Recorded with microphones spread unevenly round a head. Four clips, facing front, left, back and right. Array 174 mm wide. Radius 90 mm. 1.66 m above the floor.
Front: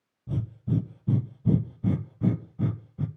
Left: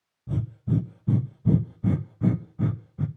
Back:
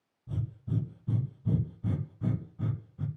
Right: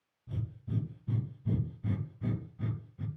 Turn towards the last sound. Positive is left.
turn(degrees=45)